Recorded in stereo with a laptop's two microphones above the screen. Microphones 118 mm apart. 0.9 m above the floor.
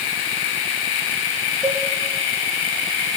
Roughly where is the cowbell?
Centre.